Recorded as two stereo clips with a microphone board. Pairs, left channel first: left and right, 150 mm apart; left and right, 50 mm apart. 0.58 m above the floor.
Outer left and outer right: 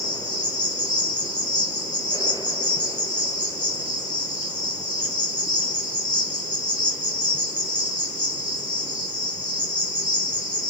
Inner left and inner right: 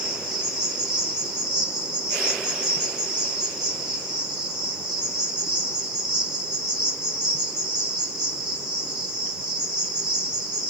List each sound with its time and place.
0.0 s an insect: 10° right (ahead or behind), 5 m